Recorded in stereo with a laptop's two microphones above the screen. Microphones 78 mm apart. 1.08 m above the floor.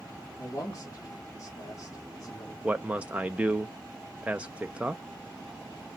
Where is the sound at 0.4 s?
45° left (ahead or behind), 1.6 m.